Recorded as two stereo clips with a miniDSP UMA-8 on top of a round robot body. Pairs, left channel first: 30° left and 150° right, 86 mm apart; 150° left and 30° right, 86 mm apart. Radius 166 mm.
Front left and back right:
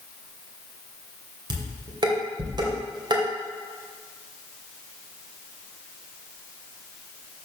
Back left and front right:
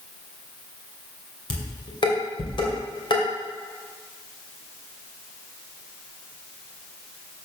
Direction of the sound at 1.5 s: Straight behind.